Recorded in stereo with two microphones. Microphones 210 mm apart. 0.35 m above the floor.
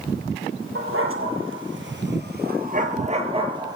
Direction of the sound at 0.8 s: 85° right.